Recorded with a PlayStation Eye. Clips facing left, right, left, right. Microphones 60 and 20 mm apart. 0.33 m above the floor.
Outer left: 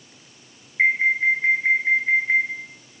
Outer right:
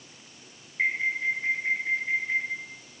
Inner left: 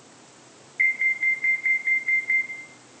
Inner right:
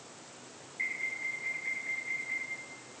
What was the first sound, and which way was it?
An alarm, 40° left (ahead or behind).